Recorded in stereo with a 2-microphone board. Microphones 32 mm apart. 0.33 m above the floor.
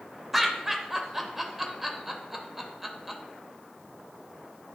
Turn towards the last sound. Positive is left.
turn(degrees=-10)  # may be behind; listen again after turning